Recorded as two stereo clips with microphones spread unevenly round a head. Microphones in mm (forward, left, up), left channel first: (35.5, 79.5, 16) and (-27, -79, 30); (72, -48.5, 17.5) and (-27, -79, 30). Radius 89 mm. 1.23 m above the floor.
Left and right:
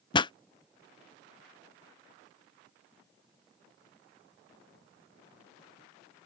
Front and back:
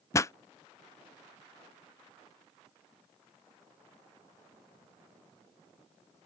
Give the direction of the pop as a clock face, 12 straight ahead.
11 o'clock.